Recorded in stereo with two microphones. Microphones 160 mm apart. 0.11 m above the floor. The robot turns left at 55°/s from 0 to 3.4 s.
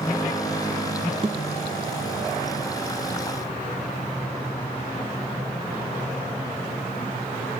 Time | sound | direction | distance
1.2 | a thud | 35° right (ahead or behind) | 0.7 m